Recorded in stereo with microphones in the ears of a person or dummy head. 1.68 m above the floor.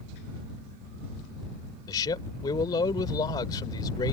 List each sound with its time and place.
1.9 s a man speaking: 25° left (ahead or behind)